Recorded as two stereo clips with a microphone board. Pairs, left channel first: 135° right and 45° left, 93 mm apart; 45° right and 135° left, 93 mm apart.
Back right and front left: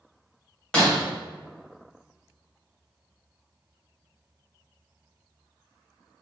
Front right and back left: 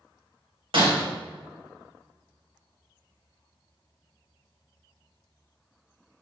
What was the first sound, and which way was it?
Breaking glass, 145° left.